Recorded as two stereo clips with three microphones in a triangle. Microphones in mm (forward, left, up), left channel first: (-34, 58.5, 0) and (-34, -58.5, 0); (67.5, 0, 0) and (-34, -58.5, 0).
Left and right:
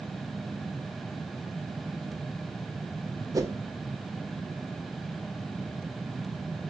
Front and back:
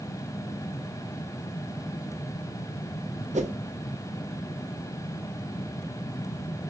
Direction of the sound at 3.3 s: 150° right.